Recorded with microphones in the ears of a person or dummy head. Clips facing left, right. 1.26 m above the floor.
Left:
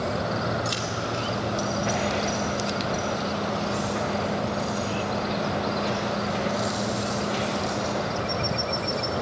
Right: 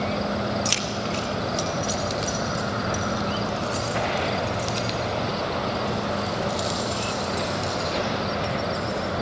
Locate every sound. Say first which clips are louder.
0.7 s keys jangling: right 1 dB; 40° right (ahead or behind), 1.1 m; by 9.0 s 45° right (ahead or behind), 10.5 m